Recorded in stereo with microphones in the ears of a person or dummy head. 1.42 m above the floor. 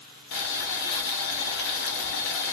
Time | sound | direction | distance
0.3 | boiling | 60° left (ahead or behind) | 0.7 m